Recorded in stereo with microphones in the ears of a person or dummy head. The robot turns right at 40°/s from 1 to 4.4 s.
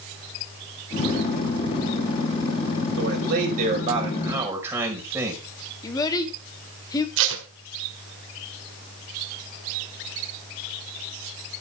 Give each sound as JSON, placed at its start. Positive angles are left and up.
{"t": 3.0, "sound": "a man speaking", "azimuth_deg": -70, "distance_m": 5.0}
{"t": 5.8, "sound": "a child speaking", "side_deg": 20, "distance_m": 2.0}
{"t": 7.2, "sound": "tape being pulled", "side_deg": -70, "distance_m": 2.0}